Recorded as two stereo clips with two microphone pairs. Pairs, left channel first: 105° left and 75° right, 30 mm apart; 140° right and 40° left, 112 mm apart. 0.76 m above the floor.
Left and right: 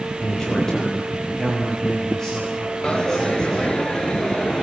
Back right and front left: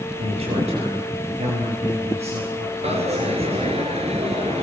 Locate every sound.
0.2 s a man speaking: 45° left, 5 m; by 3.6 s 30° left, 8.5 m
2.8 s a dropped coin: 45° left, 2.5 m